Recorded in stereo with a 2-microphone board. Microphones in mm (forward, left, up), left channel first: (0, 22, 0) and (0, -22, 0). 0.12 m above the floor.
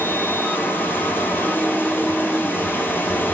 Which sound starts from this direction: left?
Running water, at 0.0 s.